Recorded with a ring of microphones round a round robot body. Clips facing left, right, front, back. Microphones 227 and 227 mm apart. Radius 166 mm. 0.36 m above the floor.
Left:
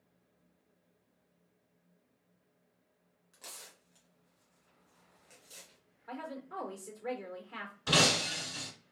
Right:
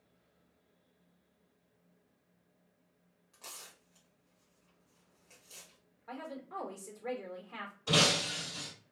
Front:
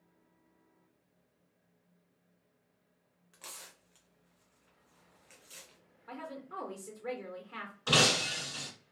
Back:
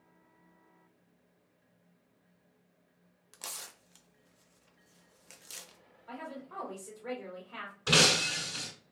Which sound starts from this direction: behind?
Tearing paper, at 3.3 s.